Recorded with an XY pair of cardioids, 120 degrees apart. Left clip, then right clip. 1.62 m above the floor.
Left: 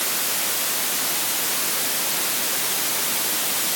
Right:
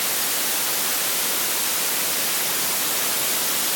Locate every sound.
Only background noise.